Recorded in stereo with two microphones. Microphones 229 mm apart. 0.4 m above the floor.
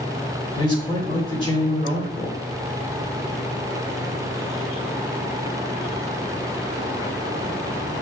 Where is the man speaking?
20° left (ahead or behind), 1.4 m.